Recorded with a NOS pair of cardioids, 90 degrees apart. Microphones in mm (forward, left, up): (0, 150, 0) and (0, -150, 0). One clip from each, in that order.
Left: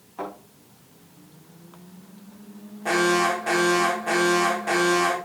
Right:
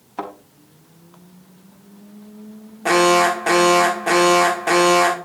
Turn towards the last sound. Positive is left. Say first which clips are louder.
# right 6 dB
turn(degrees=-55)